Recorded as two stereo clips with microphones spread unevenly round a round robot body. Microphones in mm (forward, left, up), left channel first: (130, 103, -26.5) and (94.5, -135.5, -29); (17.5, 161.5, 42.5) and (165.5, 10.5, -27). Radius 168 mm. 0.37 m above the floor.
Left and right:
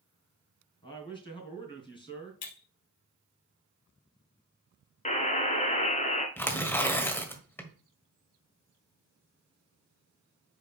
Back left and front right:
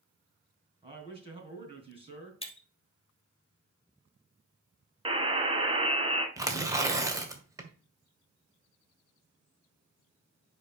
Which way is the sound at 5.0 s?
20° left.